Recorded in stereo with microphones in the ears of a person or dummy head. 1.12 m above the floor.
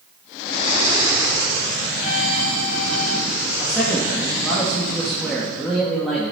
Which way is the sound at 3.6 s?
5° left (ahead or behind).